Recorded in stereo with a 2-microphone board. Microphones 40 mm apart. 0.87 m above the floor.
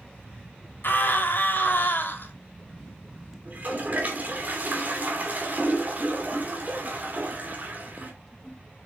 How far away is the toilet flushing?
About 2.5 m.